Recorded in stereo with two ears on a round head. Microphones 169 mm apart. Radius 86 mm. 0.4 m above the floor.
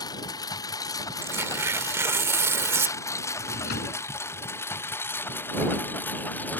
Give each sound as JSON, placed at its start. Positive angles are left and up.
{"t": 0.0, "sound": "a lawn mower", "side_deg": 20}
{"t": 1.2, "sound": "tearing paper", "side_deg": -15}
{"t": 3.4, "sound": "a drawer", "side_deg": 55}